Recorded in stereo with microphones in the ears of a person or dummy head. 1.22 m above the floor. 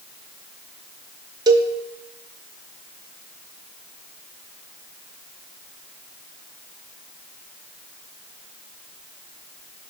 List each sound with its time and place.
1.5 s a cowbell: 25° right (ahead or behind), 0.5 m